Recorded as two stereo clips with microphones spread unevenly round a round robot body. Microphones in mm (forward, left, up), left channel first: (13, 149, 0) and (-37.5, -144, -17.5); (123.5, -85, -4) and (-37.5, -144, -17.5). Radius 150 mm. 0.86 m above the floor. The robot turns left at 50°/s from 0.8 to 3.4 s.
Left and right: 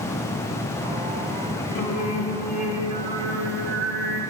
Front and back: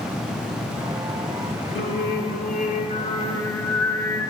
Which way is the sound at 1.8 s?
35° left.